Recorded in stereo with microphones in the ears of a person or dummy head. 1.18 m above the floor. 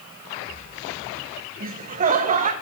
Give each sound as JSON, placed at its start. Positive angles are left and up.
{"t": 1.6, "sound": "laughter", "side_deg": -35, "distance_m": 0.5}